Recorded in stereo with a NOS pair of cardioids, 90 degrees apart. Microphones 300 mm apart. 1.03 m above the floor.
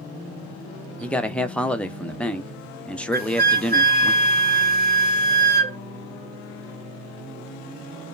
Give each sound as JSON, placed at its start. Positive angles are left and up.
{"t": 1.0, "sound": "a man speaking", "azimuth_deg": 5, "distance_m": 0.5}
{"t": 3.1, "sound": "a flute", "azimuth_deg": -30, "distance_m": 1.0}